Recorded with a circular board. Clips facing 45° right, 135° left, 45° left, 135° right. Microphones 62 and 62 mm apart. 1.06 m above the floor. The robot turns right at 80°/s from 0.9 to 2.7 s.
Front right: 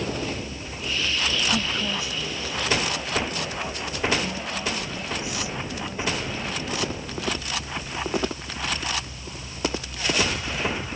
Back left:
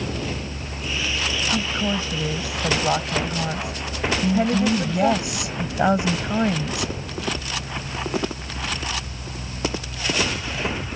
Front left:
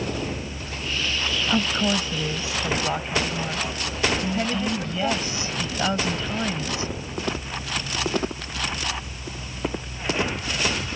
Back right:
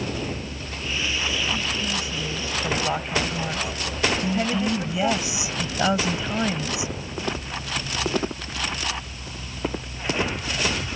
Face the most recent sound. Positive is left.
turn(degrees=150)